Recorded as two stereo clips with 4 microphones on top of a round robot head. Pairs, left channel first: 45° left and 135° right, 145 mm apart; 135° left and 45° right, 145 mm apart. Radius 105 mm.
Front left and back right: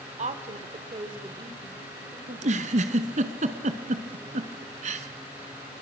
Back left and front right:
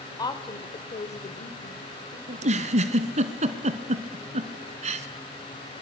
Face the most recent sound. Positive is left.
turn(degrees=-90)